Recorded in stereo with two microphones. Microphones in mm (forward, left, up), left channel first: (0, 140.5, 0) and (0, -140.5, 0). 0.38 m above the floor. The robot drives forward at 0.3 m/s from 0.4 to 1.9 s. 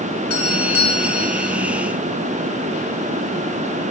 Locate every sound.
0.3 s a doorbell: 55° left (ahead or behind), 4 m; by 1.6 s 60° left (ahead or behind), 4 m